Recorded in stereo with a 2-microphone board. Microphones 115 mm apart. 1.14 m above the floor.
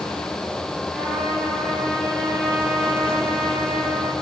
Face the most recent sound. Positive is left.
turn(degrees=0)  # may be behind; listen again after turning